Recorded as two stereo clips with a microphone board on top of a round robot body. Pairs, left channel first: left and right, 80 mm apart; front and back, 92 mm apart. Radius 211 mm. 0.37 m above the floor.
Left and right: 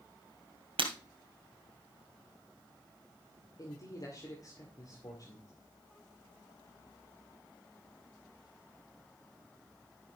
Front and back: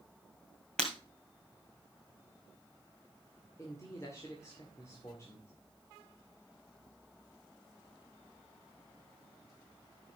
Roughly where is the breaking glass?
Right.